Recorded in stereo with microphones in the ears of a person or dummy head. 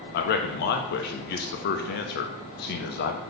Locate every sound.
0.1 s a man speaking: 50° left (ahead or behind), 0.6 m